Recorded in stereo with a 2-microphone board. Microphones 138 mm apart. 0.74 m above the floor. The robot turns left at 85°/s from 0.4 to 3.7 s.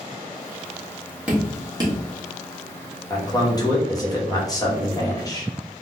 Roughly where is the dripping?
Centre.